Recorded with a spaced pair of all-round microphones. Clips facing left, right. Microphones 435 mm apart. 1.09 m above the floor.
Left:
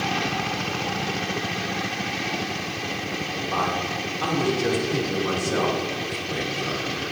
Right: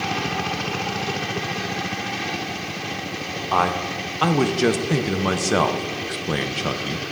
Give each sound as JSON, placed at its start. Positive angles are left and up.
{"t": 3.5, "sound": "a man speaking", "side_deg": -85, "distance_m": 0.6}